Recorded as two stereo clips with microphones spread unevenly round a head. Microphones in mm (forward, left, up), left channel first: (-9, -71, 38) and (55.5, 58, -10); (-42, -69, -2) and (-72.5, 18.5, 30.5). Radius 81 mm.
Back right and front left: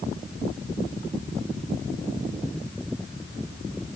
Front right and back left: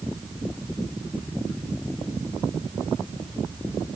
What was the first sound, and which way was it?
Only background noise.